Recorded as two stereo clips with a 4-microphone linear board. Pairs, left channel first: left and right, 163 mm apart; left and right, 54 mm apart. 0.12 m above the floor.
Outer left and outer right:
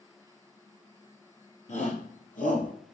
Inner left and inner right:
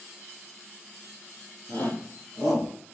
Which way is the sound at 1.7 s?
50° left (ahead or behind).